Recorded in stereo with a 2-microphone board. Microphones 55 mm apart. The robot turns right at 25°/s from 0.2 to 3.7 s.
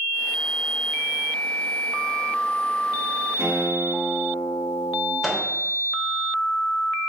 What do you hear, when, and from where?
3.4 s a guitar: 45° right (ahead or behind), 1.8 m; by 5.1 s 35° right (ahead or behind), 1.8 m
5.2 s a microwave: 5° right (ahead or behind), 0.8 m